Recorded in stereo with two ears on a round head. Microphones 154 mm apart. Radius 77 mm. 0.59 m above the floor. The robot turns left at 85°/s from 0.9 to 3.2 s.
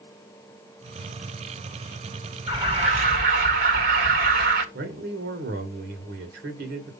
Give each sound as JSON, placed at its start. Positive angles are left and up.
{"t": 2.5, "sound": "an alarm", "azimuth_deg": -20, "distance_m": 2.0}
{"t": 4.7, "sound": "a man speaking", "side_deg": -65, "distance_m": 2.0}